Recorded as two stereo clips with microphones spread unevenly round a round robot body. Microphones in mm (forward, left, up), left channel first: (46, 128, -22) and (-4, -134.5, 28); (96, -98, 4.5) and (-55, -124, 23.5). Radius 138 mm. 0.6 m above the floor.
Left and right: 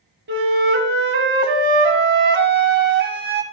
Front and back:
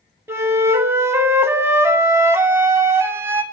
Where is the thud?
No thud in this recording.